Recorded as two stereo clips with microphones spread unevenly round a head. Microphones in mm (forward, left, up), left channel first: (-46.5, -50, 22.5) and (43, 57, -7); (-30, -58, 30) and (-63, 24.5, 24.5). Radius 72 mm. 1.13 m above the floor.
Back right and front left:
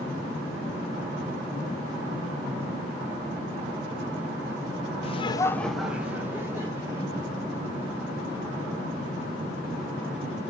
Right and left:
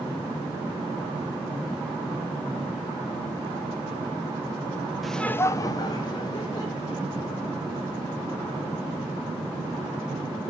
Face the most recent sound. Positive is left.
turn(degrees=-15)